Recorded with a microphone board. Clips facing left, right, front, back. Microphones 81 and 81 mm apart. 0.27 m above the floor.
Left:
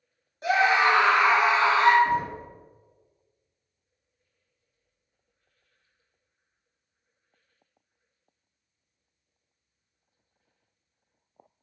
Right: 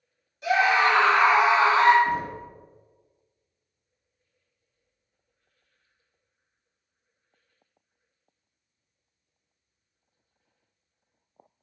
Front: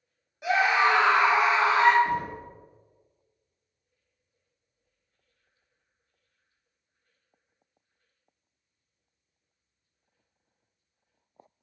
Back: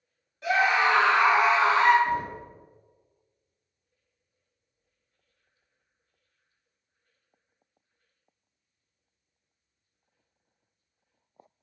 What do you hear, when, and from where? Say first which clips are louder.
0.4 s a scream: even, even; 70° left, 1.7 m; by 1.9 s 80° right, 1.5 m
2.0 s knocking: left 1 dB, back 1 dB; 45° left, 1.9 m